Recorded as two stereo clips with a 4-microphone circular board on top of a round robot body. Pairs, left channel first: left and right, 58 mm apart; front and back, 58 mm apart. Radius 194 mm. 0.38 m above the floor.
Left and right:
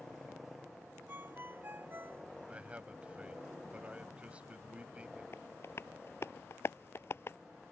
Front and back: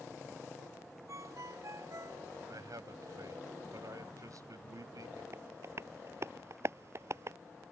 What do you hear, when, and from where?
1.1 s a ringtone: 145° right
2.5 s a man speaking: 160° right
5.3 s tapping: 135° left